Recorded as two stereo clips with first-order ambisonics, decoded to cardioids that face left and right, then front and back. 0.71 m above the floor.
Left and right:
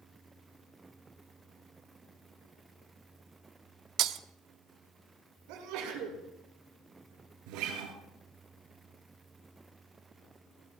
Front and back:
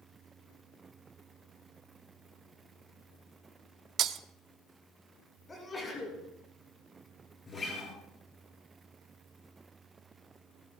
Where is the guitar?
70° right, 4.5 m.